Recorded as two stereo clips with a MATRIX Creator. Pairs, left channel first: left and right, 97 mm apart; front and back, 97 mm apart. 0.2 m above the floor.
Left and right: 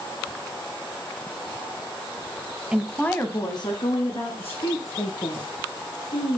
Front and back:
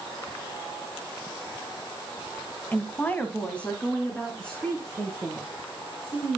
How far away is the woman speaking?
About 1.0 m.